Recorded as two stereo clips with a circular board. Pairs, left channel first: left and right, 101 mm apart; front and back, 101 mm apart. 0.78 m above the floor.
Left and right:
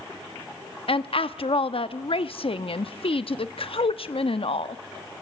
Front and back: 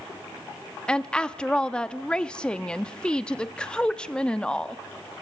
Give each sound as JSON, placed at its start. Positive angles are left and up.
{"t": 0.9, "sound": "a woman speaking", "azimuth_deg": 80, "distance_m": 0.9}